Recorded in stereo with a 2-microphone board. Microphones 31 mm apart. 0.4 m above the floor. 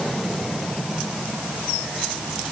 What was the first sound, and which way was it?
Only background noise.